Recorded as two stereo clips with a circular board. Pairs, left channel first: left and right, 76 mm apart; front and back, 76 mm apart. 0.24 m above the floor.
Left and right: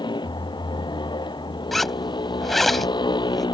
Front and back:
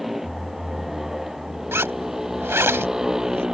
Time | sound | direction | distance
0.0 | a motorcycle | 95° left | ?
1.7 | a zipper | 175° left | ?